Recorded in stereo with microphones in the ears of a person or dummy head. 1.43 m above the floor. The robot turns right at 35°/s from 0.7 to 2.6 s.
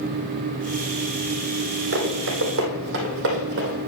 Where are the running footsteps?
65° right (ahead or behind), 3.5 m; by 3.8 s 60° right (ahead or behind), 3 m.